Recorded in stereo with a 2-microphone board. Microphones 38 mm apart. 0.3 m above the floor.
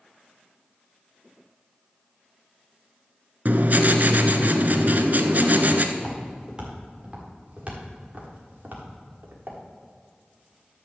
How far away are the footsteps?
About 5 m.